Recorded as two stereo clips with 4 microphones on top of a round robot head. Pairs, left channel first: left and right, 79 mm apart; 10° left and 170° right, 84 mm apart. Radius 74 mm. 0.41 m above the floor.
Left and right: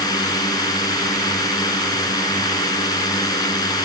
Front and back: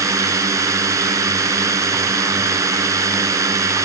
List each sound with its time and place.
0.0 s a drone: 135° left